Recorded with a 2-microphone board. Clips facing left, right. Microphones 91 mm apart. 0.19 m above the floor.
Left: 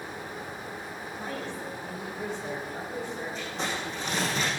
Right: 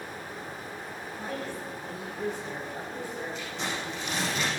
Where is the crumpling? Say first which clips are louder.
Left 1 dB; 35° left (ahead or behind), 6.5 m.